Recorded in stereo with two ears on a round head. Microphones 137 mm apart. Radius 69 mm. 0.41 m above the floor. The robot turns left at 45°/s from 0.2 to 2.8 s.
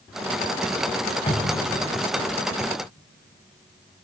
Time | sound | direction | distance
1.3 | a cupboard door | 35° left (ahead or behind) | 3 m